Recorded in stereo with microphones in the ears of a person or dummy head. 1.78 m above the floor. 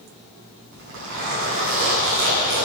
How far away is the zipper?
About 6.5 m.